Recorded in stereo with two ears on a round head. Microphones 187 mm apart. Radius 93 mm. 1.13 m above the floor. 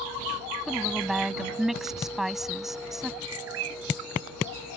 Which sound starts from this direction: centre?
A woman speaking, at 0.7 s.